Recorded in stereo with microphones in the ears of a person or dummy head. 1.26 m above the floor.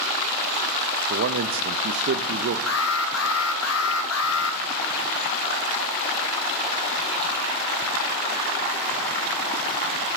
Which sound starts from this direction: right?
A man speaking, at 1.1 s.